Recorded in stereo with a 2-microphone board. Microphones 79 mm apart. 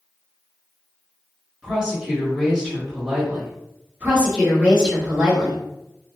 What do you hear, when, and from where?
1.6 s a woman speaking: 10° right (ahead or behind), 1.2 m
4.0 s a woman speaking: 20° right (ahead or behind), 1.3 m